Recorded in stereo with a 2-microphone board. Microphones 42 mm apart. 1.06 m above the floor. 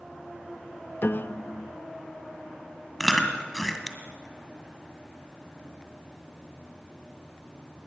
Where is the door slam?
I don't hear a door slam.